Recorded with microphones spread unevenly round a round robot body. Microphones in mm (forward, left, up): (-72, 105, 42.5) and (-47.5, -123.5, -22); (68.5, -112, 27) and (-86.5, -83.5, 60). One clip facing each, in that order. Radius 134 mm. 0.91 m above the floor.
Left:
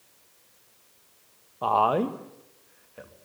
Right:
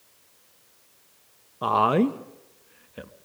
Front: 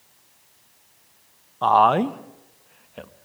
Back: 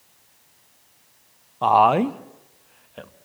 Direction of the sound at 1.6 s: 105° right.